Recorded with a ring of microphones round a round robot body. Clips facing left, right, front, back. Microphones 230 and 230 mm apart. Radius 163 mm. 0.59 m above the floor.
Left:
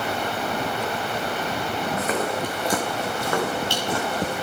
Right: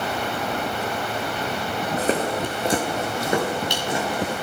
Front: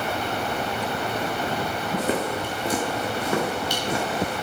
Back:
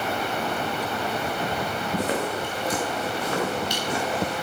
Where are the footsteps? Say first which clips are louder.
Right 4 dB, front 2 dB; 30° right, 2.5 m; by 4.3 s 15° right, 5.5 m.